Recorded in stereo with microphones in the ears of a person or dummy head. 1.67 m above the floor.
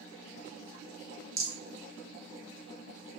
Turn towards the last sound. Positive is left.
turn(degrees=-20)  # may be behind; listen again after turning